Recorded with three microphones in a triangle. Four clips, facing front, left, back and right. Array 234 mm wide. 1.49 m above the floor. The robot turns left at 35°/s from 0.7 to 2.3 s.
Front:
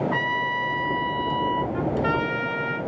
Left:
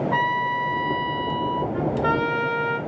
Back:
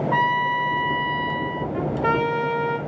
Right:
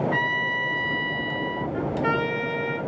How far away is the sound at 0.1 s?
About 0.9 m.